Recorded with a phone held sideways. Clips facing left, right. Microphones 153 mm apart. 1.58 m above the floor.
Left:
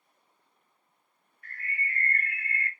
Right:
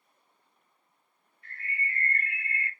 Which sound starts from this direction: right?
A bird, at 1.4 s.